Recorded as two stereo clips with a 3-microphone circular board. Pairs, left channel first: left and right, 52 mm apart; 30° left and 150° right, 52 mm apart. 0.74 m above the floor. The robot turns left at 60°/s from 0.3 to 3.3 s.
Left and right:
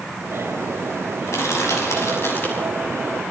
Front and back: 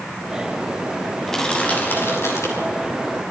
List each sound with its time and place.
1.3 s crushing: 115° left, 6.5 m; by 2.7 s 25° left, 6.5 m